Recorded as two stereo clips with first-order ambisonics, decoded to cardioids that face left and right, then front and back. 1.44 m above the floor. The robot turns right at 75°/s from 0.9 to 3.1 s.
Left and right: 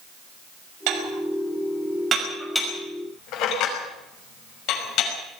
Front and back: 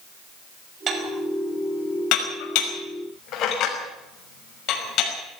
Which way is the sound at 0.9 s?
120° right.